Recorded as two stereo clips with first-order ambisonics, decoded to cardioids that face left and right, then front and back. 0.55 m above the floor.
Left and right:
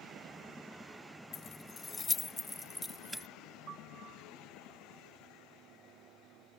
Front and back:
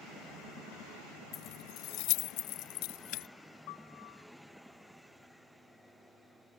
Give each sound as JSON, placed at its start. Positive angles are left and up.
{"t": 1.3, "sound": "keys jangling", "azimuth_deg": 40}
{"t": 3.7, "sound": "a piano", "azimuth_deg": -30}